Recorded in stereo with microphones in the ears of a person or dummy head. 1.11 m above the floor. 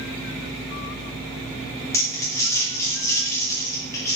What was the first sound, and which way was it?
Crumpling, 15° left (ahead or behind).